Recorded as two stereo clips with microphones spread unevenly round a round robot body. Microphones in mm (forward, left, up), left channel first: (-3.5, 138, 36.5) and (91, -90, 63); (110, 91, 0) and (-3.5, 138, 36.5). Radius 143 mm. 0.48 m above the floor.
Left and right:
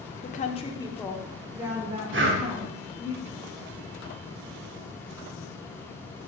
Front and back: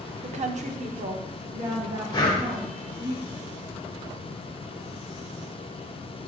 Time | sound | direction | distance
0.2 | a woman speaking | 140° left | 1.0 m
2.1 | breathing | 40° right | 1.4 m